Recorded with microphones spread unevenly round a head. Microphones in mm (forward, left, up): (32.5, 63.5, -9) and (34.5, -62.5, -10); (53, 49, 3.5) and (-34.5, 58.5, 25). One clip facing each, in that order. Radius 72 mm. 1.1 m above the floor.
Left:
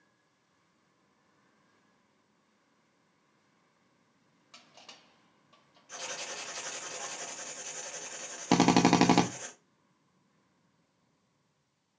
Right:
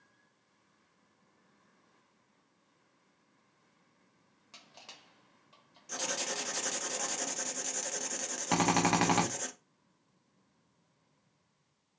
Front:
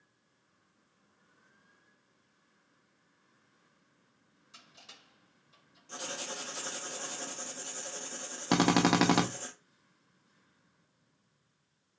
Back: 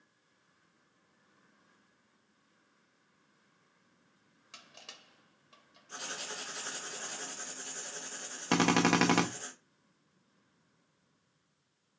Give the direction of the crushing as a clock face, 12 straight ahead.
6 o'clock.